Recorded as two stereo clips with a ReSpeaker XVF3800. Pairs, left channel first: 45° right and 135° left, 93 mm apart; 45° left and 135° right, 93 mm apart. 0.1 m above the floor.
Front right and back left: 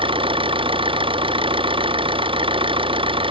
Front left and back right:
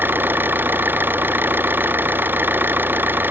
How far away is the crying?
I don't hear crying.